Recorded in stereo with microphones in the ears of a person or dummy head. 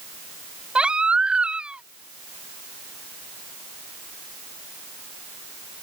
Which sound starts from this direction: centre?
A baby crying, at 0.8 s.